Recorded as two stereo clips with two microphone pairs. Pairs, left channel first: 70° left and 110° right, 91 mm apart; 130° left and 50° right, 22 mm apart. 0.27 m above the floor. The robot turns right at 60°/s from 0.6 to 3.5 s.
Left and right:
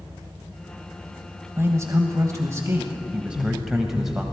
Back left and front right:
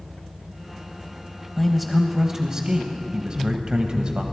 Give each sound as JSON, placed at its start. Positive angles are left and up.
{"t": 1.6, "sound": "a man speaking", "azimuth_deg": -145, "distance_m": 1.1}